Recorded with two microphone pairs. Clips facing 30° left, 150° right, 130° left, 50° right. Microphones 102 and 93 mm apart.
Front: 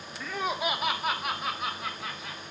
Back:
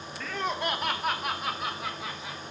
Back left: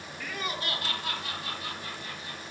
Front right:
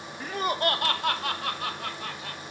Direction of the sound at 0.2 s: 40° right.